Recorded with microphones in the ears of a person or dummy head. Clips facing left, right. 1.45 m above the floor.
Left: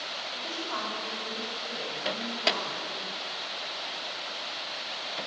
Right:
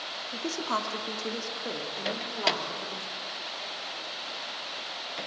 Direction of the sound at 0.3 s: 65° right (ahead or behind).